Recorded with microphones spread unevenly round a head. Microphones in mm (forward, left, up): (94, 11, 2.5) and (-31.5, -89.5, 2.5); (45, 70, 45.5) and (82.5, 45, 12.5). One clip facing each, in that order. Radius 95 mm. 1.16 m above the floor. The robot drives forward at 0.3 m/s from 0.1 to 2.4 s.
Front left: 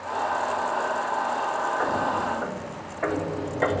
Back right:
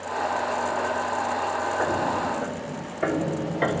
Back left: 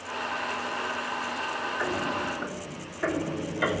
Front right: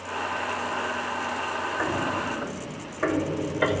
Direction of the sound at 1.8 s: 110° right.